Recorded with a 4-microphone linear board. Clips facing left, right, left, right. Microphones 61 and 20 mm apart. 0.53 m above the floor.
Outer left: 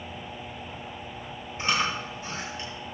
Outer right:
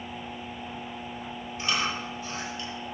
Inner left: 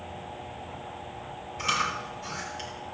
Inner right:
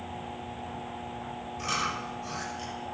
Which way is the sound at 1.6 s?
35° left (ahead or behind).